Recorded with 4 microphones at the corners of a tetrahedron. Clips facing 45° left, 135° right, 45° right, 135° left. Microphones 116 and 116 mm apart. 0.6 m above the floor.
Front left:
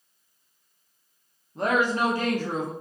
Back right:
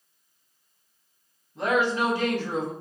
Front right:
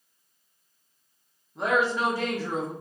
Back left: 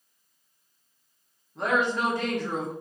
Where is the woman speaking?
40° left, 0.8 m.